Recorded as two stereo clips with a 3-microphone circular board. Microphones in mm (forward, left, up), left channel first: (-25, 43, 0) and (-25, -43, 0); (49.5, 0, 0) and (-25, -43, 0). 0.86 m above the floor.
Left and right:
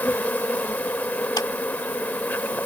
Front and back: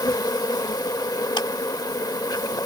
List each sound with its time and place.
0.0 s an insect: 30° left
1.4 s a clap: 55° left